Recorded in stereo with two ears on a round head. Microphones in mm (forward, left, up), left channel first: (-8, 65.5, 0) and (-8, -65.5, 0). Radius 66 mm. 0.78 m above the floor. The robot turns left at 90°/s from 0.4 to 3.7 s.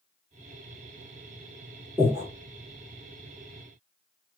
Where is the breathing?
15° right (ahead or behind), 1.6 m; by 2.3 s 40° right (ahead or behind), 1.6 m.